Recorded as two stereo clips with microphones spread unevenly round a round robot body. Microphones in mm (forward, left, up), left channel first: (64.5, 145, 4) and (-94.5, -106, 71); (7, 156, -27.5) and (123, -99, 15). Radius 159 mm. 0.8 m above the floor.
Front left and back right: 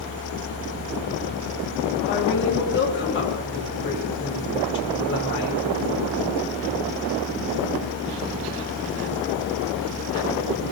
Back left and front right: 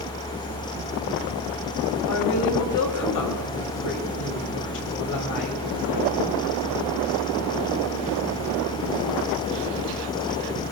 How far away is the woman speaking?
About 3.5 m.